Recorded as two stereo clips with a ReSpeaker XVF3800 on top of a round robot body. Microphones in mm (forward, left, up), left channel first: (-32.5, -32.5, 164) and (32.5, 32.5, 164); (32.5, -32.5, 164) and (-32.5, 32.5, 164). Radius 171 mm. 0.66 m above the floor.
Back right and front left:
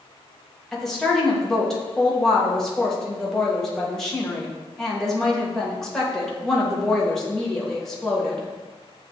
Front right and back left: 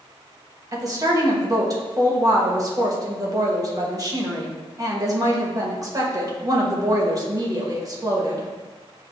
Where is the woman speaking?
140° left, 1.2 m.